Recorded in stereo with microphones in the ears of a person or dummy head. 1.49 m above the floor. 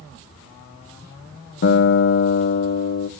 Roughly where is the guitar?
Left.